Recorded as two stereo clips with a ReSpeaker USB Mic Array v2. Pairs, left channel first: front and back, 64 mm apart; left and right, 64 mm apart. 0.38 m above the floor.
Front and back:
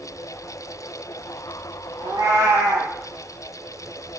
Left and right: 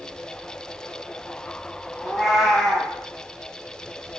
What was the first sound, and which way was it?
A cat meowing, straight behind.